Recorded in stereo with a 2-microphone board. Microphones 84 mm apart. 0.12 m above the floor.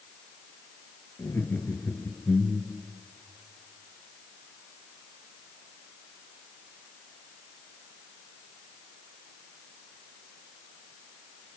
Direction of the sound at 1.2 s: 30° left (ahead or behind).